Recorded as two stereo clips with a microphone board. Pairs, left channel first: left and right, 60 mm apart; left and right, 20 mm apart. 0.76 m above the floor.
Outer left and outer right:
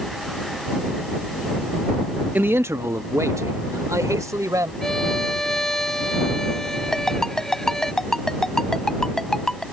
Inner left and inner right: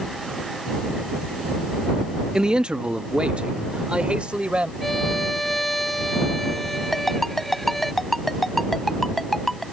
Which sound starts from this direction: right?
A man speaking, at 2.4 s.